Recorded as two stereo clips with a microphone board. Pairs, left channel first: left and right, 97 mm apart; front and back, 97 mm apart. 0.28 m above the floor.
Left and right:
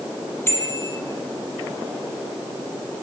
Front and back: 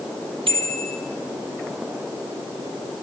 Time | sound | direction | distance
0.5 | a bicycle bell | 155° left | 6 m